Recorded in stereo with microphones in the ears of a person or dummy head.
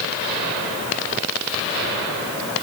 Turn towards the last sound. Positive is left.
No sound to turn to.